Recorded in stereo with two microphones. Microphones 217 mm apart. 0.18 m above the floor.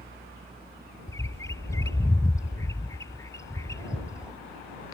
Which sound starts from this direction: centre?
A bird, at 1.1 s.